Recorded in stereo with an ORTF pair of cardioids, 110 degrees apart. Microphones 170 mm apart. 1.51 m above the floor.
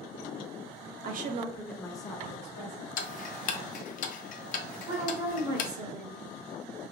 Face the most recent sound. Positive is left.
turn(degrees=-40)